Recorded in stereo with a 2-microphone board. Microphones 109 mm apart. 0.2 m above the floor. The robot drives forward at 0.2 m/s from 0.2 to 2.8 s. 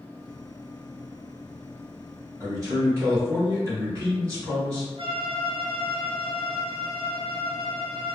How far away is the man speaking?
About 1.5 m.